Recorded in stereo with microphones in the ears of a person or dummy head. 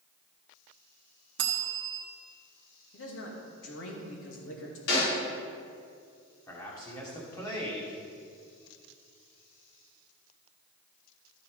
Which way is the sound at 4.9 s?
80° left.